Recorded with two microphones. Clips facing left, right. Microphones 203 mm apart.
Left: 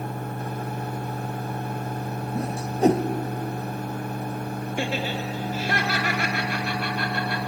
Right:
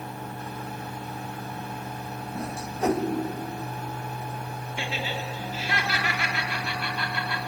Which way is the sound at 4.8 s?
45° left (ahead or behind).